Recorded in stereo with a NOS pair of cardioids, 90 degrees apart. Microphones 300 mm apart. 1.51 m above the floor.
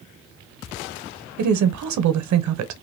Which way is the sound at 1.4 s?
70° right.